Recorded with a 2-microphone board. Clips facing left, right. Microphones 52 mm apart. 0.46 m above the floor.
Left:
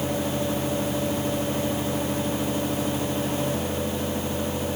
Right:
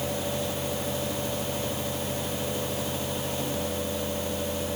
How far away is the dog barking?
No dog barking in this recording.